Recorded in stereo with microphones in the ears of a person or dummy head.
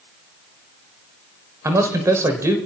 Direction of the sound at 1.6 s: 15° right (ahead or behind).